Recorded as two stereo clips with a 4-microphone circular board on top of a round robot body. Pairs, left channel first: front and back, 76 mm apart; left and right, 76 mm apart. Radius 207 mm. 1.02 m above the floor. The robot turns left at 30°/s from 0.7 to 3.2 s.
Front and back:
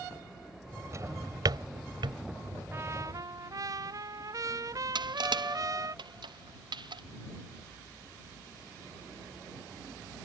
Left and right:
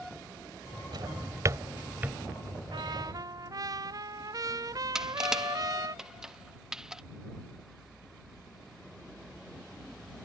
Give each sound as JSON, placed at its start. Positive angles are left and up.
{"t": 0.9, "sound": "a drawer", "azimuth_deg": -125}
{"t": 2.7, "sound": "a trumpet", "azimuth_deg": -120}
{"t": 5.0, "sound": "crushing", "azimuth_deg": -175}